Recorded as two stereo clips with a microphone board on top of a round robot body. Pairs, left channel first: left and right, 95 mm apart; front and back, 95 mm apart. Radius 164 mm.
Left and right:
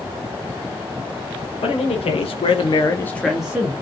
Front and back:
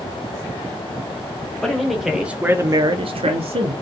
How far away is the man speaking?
About 1.0 m.